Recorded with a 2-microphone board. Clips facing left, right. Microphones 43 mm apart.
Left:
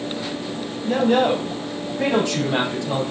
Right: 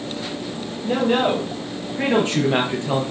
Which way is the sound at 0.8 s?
30° right (ahead or behind).